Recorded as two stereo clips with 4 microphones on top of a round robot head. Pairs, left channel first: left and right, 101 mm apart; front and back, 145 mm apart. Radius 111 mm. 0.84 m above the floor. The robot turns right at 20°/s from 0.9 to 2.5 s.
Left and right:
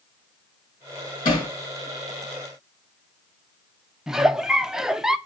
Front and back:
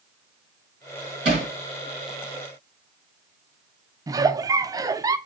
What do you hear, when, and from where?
1.2 s hammering: 130° left, 5.5 m; by 1.5 s 135° left, 5.5 m
4.1 s a giggle: 165° right, 0.6 m